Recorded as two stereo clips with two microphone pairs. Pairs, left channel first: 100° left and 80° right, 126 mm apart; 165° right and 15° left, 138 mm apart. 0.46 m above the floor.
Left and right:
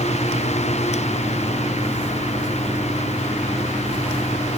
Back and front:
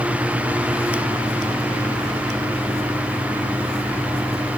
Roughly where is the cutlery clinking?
No cutlery clinking in this recording.